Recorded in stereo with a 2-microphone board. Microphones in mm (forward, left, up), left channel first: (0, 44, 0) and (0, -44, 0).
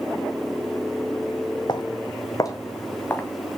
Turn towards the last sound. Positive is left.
turn(degrees=20)  # may be behind; listen again after turning